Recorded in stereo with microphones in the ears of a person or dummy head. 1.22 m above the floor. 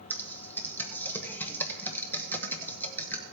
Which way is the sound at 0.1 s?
5° left (ahead or behind).